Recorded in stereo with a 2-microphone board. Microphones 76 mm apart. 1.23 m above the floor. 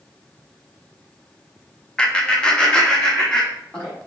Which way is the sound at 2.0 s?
10° left (ahead or behind).